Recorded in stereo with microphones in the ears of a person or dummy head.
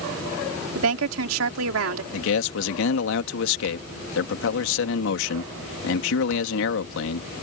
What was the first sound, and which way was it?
A woman speaking, 80° right.